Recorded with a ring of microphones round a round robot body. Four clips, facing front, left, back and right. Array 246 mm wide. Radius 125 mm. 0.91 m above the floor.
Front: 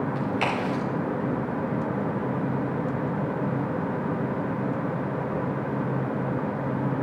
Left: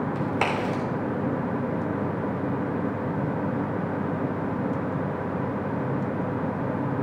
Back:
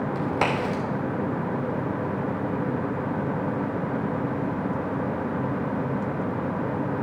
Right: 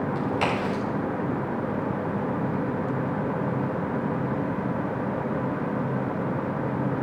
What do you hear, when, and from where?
0.1 s a crack: 145° left, 3 m